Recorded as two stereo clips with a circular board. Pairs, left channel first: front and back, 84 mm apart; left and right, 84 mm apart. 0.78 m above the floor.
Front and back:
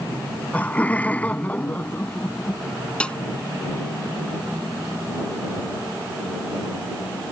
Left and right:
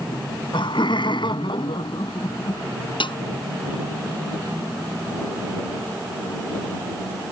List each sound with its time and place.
0.1 s laughter: 75° left
3.0 s a snare drum: 80° left